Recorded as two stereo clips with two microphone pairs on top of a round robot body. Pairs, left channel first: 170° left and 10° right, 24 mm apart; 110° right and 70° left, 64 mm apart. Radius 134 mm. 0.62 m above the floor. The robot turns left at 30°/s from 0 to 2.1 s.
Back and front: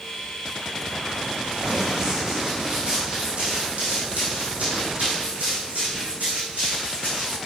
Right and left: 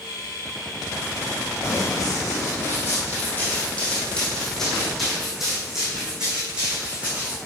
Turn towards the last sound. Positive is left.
turn(degrees=-5)